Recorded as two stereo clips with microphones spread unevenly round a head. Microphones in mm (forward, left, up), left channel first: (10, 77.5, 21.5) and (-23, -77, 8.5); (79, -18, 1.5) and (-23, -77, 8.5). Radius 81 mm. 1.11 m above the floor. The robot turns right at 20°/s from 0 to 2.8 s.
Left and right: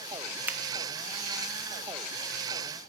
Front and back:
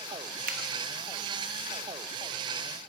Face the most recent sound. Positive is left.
turn(degrees=-135)